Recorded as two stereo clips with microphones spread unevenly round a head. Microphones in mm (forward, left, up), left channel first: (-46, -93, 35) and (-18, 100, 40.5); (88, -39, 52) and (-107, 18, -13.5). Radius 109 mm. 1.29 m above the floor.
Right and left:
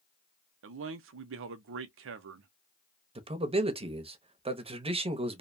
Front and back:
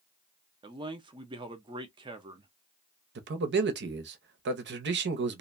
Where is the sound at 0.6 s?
100° left, 0.6 m.